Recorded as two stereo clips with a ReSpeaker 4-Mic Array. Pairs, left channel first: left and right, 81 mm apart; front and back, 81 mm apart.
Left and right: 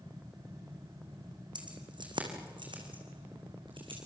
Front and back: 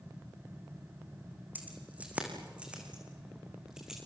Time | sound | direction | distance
1.6 | keys jangling | 115° right | 4.5 m